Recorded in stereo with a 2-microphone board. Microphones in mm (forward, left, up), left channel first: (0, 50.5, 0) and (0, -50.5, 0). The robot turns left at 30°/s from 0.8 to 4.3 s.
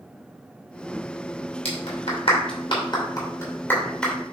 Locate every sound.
1.6 s a clap: 80° left, 2.5 m; by 4.1 s 5° left (ahead or behind), 2.5 m